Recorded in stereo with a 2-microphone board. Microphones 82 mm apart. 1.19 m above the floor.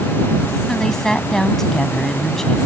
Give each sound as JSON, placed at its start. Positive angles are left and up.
{"t": 0.7, "sound": "a woman speaking", "side_deg": 5}